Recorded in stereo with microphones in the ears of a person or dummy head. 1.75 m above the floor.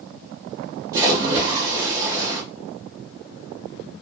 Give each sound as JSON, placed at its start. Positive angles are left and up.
{"t": 0.9, "sound": "a splash", "side_deg": -20, "distance_m": 1.0}